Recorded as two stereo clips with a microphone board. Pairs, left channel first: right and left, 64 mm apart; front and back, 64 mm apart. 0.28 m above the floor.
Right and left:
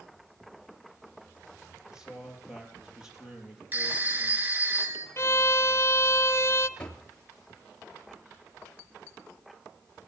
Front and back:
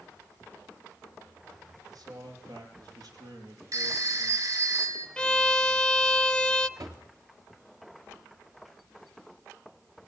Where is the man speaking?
170° left, 6.5 m.